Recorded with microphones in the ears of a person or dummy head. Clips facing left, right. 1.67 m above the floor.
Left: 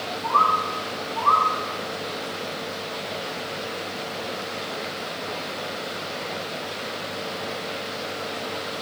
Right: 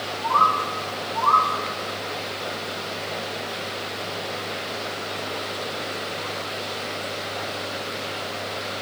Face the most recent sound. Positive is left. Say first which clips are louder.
# right 1 dB
turn(degrees=35)  # may be behind; listen again after turning